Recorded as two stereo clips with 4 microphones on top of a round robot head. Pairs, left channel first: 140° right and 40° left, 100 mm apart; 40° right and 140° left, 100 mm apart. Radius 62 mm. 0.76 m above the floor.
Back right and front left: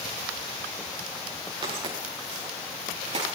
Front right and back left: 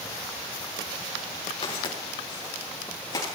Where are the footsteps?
Straight ahead, 7.5 m; by 3.2 s 15° left, 9 m.